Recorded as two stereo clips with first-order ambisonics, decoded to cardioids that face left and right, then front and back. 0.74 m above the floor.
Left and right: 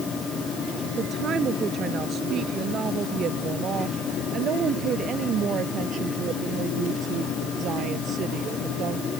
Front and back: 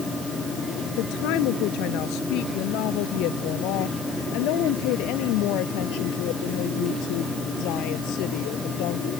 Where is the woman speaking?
25° right; by 9.1 s 30° right.